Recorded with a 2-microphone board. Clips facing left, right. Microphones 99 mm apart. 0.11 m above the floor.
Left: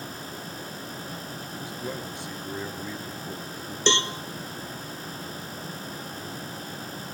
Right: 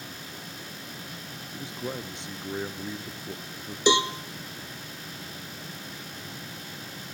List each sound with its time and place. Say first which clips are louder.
1.5 s a man speaking: right 1 dB; 25° right (ahead or behind), 1.4 m
3.9 s a cowbell: right 3 dB; 10° right (ahead or behind), 0.9 m